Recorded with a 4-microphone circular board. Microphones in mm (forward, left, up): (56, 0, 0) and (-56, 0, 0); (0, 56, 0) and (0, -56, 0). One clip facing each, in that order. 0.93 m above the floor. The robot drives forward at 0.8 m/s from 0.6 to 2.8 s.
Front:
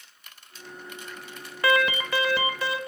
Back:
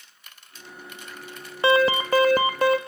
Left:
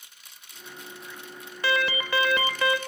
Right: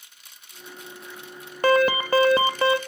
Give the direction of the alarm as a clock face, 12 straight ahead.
4 o'clock.